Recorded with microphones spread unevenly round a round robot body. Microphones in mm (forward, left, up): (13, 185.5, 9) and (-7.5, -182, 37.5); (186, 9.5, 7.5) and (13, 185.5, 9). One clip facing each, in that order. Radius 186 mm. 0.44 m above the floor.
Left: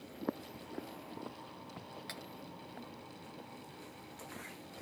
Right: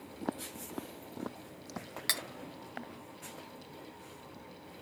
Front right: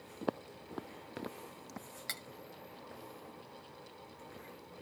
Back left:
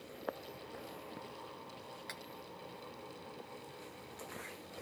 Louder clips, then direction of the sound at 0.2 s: Right 1 dB, front right 7 dB; 10° right.